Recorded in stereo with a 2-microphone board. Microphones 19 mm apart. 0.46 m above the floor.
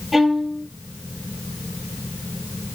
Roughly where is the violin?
Centre.